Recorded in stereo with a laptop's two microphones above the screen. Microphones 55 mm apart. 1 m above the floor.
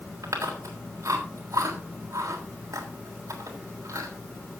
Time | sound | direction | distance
0.2 | chewing | 85° right | 3 m